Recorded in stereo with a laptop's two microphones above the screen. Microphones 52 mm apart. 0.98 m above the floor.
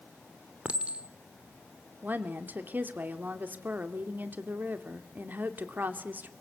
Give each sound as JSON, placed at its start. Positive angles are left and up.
{"t": 0.7, "sound": "a clink", "side_deg": -25, "distance_m": 1.9}
{"t": 2.0, "sound": "a woman speaking", "side_deg": -35, "distance_m": 2.5}